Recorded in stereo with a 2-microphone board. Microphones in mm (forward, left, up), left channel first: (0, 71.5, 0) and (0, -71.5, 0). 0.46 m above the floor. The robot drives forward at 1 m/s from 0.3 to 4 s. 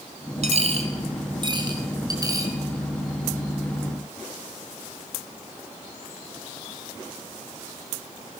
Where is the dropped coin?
55° right (ahead or behind), 1.8 m; by 2.5 s 25° right (ahead or behind), 3.5 m.